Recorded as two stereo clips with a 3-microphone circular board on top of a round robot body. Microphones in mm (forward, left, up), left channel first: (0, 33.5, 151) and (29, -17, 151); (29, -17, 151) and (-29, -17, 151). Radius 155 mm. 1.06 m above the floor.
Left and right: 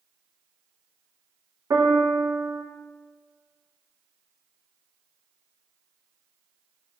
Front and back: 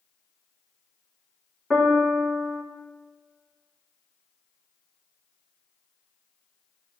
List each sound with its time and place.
1.7 s a piano: 85° right, 2.5 m